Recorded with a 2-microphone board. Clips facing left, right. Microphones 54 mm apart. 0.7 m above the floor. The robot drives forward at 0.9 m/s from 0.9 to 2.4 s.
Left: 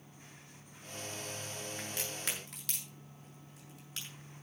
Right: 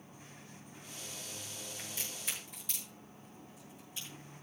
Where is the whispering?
No whispering in this recording.